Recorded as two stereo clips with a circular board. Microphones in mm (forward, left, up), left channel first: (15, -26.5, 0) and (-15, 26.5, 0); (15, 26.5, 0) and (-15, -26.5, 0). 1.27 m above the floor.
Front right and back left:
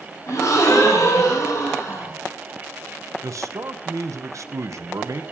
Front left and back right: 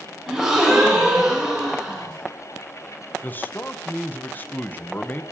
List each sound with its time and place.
0.3 s a gasp: 45° right, 5 m
3.2 s a man speaking: 110° left, 0.9 m